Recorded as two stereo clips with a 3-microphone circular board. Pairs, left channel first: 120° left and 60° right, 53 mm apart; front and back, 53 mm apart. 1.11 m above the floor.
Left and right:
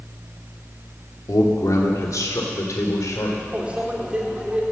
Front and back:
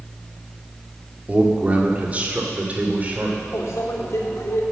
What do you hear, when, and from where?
1.3 s a man speaking: 120° left, 2 m
3.5 s a microwave: 10° left, 2 m